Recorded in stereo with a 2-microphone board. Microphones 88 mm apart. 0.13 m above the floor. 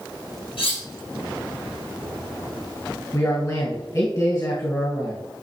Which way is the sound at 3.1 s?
40° left (ahead or behind).